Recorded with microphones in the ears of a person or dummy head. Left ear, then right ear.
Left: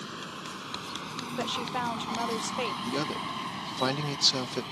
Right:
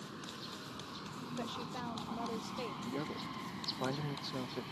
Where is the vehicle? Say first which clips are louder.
Left 8 dB; 85° left; by 4.7 s 25° left (ahead or behind).